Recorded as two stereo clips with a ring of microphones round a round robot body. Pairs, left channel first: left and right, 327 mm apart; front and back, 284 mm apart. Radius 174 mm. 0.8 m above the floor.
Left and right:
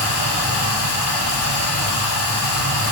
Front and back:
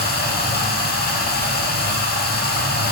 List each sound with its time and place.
0.0 s running water: 55° left, 1.4 m